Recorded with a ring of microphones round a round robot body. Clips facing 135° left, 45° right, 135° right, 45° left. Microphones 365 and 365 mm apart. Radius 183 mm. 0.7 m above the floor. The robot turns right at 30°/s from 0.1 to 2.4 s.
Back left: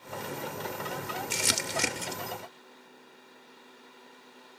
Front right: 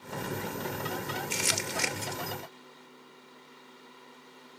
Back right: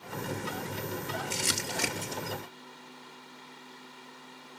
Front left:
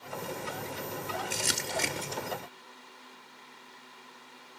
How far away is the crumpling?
About 1.2 m.